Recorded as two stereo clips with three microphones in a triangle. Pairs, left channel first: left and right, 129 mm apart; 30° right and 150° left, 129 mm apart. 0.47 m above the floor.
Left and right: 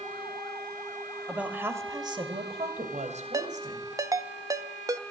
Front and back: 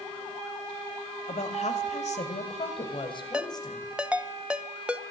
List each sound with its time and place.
1.3 s a woman speaking: 5° right, 2.5 m; by 3.9 s 95° right, 3.5 m
3.3 s a ringtone: 130° right, 0.6 m